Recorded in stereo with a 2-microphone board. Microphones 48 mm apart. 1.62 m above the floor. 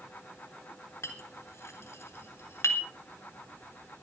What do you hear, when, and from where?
1.0 s a clink: 80° left, 3.5 m